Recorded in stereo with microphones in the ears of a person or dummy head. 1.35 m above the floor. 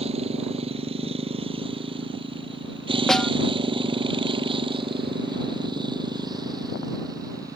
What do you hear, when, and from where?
0.0 s a motorcycle: 35° right (ahead or behind); by 7.6 s 20° right (ahead or behind)
3.1 s a snare drum: centre (ahead or behind)